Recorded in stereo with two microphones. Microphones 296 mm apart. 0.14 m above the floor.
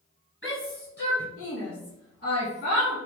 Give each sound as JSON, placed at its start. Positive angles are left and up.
{"t": 0.4, "sound": "a shout", "side_deg": 40, "distance_m": 1.9}